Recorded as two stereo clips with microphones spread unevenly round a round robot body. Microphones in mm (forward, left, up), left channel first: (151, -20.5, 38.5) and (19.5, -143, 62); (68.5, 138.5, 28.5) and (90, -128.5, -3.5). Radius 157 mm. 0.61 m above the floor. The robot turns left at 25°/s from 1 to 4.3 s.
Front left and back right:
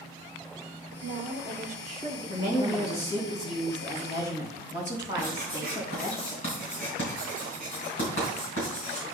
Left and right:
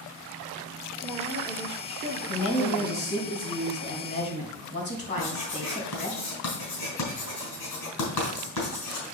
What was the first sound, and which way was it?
A woman speaking, 170° right.